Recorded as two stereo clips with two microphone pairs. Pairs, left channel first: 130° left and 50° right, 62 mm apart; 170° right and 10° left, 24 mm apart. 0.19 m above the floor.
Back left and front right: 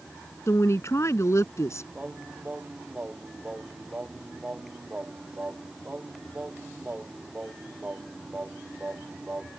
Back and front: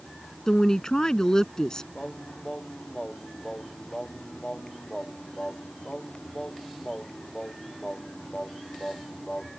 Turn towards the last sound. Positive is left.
turn(degrees=-115)